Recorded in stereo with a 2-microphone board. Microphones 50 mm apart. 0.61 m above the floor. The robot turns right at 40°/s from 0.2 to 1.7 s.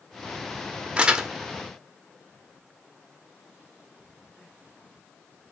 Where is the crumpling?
20° right (ahead or behind), 0.5 m; by 1.3 s 10° right (ahead or behind), 0.5 m.